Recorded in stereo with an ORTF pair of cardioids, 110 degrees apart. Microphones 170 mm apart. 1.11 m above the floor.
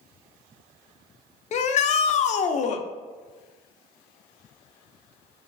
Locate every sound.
1.5 s a shout: 45° left, 0.5 m